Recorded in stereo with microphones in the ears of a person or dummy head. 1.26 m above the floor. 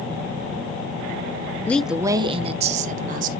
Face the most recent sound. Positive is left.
turn(degrees=-50)  # may be behind; listen again after turning